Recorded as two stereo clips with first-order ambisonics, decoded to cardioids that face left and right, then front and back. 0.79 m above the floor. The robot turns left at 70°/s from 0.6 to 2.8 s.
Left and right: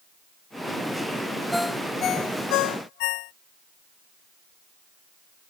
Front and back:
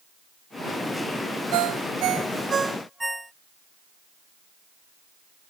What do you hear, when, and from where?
1.5 s a ringtone: 175° right; by 3.3 s 90° left